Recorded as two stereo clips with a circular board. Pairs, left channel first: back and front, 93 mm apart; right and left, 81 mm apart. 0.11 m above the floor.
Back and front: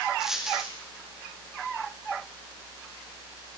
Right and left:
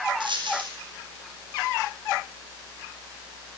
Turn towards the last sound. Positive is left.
turn(degrees=85)